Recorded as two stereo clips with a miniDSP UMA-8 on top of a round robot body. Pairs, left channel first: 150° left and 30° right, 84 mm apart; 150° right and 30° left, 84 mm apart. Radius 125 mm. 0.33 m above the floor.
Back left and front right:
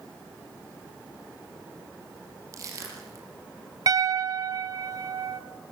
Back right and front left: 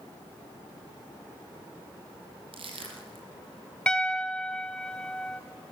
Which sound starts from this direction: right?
A piano, at 3.9 s.